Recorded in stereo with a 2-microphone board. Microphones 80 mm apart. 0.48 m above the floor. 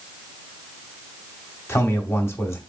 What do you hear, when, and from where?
1.7 s a man speaking: 25° left (ahead or behind), 1.0 m